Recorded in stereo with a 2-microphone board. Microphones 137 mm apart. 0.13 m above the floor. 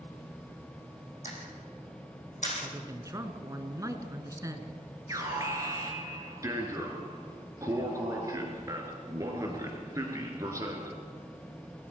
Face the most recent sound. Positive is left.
turn(degrees=-25)  # may be behind; listen again after turning